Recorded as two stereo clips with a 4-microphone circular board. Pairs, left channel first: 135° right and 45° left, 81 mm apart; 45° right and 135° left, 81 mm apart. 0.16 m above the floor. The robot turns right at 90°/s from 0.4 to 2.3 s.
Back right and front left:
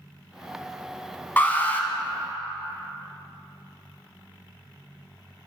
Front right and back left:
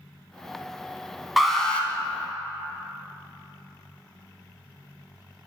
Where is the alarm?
135° right, 1.1 m; by 1.9 s 90° right, 1.1 m.